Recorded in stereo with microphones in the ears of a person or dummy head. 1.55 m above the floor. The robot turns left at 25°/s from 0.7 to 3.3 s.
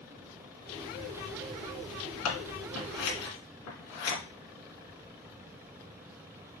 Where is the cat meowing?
No cat meowing in this recording.